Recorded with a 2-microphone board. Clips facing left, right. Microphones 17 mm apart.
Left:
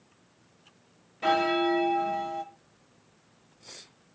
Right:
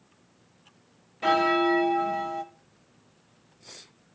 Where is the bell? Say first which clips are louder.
Right 2 dB; 10° right (ahead or behind), 0.7 m.